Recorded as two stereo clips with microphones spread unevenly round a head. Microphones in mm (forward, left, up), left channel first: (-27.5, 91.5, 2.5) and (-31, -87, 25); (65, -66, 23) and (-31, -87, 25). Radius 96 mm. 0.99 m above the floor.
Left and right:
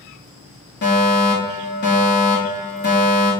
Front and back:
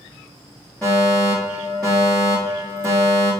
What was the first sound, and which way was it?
A fire alarm, 90° left.